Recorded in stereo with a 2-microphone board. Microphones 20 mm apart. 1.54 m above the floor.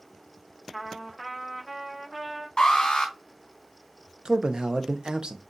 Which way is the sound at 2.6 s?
50° left (ahead or behind).